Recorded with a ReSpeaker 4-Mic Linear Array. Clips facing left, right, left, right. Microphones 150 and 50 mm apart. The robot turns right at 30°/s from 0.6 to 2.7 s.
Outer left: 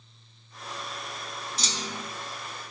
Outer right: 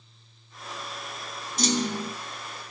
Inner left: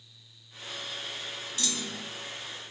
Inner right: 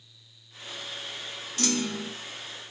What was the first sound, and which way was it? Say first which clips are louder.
A clunk: outer right 13 dB, inner right 9 dB; 50° right (ahead or behind).